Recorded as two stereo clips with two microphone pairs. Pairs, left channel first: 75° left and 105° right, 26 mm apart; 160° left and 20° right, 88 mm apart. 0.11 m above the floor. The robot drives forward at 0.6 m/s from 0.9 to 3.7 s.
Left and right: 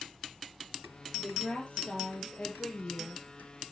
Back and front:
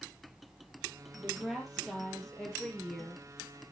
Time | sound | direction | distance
1.2 | a woman speaking | 65° left | 3.5 m